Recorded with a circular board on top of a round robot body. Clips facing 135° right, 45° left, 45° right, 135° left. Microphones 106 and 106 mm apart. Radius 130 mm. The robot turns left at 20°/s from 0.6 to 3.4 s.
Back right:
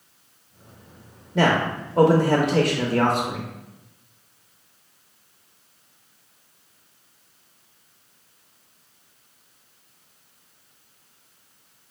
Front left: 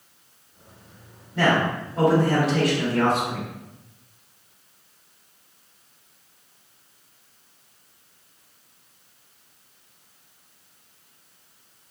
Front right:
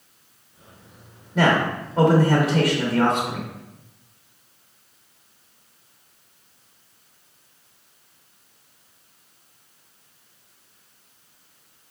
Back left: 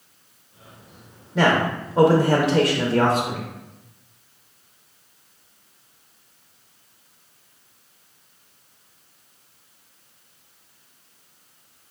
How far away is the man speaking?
About 0.7 m.